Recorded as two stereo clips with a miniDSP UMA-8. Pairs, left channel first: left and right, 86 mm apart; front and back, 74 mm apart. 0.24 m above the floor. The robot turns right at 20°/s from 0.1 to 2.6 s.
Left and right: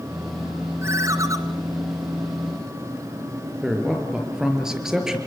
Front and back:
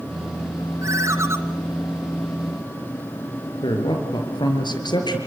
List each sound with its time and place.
0.8 s a ringtone: 140° right, 2 m; by 1.4 s 130° right, 2 m
3.6 s a man speaking: 5° right, 5 m